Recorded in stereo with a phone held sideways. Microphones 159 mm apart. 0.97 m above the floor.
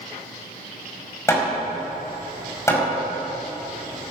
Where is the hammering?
15° left (ahead or behind), 5 m.